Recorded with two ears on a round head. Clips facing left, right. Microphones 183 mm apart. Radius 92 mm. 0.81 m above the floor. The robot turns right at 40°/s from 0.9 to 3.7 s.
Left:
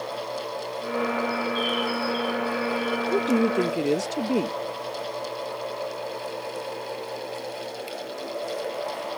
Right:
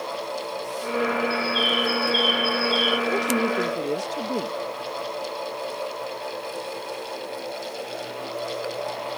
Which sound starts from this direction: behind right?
A bird, at 1.3 s.